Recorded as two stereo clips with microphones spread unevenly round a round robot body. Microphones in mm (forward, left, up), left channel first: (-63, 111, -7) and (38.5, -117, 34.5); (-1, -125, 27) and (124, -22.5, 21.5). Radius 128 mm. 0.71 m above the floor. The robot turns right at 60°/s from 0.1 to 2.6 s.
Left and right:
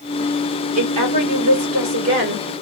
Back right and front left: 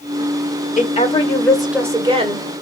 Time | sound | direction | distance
0.8 | a woman speaking | 100° right | 2.5 m